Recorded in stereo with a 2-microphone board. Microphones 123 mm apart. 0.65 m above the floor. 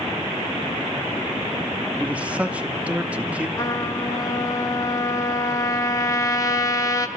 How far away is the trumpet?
About 1.0 m.